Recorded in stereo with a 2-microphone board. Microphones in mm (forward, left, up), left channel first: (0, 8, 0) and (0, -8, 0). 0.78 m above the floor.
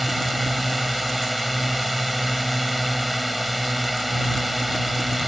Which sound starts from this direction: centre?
A drone, at 0.0 s.